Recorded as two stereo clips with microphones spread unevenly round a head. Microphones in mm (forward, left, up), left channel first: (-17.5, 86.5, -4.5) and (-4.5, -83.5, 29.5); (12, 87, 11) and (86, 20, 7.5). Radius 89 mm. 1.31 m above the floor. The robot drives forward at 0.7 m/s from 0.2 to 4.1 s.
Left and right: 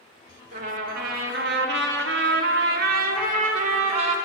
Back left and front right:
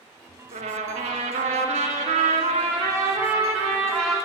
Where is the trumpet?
40° right, 1.7 m; by 4.2 s 140° right, 1.7 m.